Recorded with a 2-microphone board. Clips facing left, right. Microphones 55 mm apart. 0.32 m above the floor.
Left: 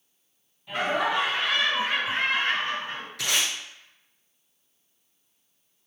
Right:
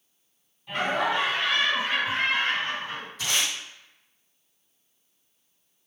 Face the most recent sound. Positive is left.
turn(degrees=85)